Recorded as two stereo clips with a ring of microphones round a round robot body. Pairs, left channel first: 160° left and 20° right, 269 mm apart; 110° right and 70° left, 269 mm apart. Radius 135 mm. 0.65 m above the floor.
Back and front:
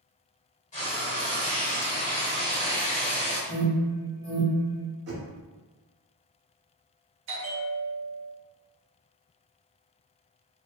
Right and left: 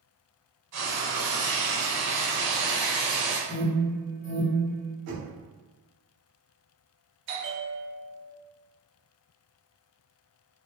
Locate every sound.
0.7 s frying: 95° left, 1.1 m
3.5 s an alarm: 170° right, 1.3 m
5.1 s knocking: 30° left, 1.1 m
7.3 s a bell: 20° left, 0.6 m